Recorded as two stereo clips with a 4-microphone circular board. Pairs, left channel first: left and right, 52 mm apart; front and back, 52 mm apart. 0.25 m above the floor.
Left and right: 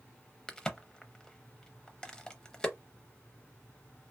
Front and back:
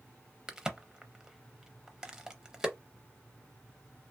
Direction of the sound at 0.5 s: 125° left.